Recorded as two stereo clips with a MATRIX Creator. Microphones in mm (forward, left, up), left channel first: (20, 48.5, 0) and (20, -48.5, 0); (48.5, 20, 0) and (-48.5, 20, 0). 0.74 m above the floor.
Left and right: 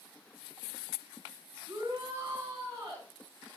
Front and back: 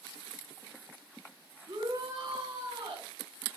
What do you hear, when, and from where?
1.7 s a shout: 145° right, 6.5 m; by 3.1 s 150° right, 7.5 m